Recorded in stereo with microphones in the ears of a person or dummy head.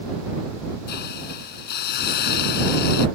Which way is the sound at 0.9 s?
70° left (ahead or behind).